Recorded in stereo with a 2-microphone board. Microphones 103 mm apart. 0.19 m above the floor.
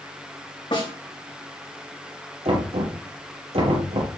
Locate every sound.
0.7 s a snare drum: 55° left (ahead or behind), 6.5 m
2.5 s knocking: 75° right (ahead or behind), 4 m